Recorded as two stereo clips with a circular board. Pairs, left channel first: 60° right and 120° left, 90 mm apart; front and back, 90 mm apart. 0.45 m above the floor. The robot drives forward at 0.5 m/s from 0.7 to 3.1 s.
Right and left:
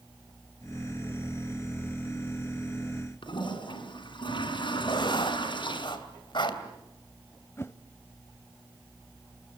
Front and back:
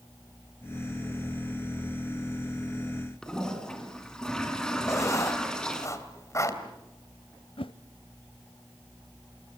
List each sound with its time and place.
3.2 s a toilet flushing: 85° right, 3 m
4.9 s writing: 50° right, 2.5 m
7.6 s a whoosh: straight ahead, 0.6 m